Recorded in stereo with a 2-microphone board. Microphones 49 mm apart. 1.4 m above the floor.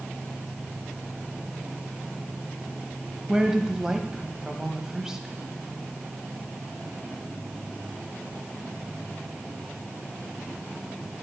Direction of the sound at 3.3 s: 10° right (ahead or behind).